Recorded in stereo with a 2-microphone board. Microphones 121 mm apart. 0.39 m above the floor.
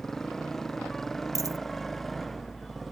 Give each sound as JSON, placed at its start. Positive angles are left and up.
{"t": 0.0, "sound": "a motorcycle", "side_deg": 5}
{"t": 1.4, "sound": "a dropped coin", "side_deg": -25}